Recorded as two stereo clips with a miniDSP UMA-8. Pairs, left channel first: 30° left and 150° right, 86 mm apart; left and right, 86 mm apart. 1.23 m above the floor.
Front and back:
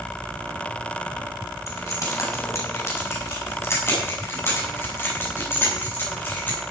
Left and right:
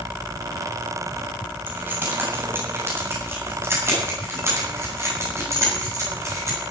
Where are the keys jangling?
20° right, 5.5 m; by 6.6 s 35° right, 9.5 m.